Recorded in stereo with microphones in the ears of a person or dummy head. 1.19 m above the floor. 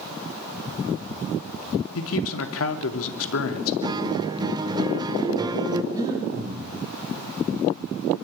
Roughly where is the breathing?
Centre.